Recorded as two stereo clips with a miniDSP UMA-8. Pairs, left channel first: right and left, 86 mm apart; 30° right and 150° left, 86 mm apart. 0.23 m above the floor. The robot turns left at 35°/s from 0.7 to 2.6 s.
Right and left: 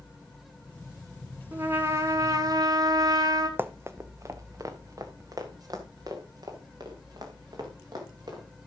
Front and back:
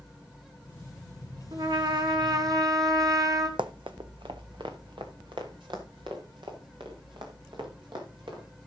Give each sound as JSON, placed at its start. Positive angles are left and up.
{"t": 1.5, "sound": "a trumpet", "azimuth_deg": 155, "distance_m": 2.0}
{"t": 3.6, "sound": "running footsteps", "azimuth_deg": 155, "distance_m": 0.7}